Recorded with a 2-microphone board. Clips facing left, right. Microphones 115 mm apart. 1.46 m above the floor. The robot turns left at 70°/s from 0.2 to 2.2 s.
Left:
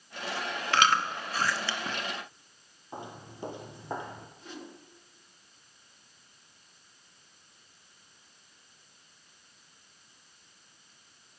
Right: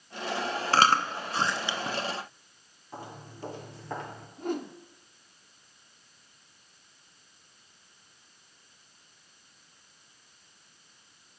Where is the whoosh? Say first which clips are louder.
Right 17 dB; 50° right (ahead or behind), 1.0 m.